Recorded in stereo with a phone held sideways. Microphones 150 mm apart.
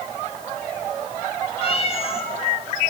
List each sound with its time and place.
1.6 s a cat meowing: 40° left (ahead or behind), 2.5 m